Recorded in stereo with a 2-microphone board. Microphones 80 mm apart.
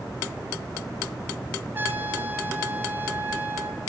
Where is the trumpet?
25° right (ahead or behind), 1.5 m.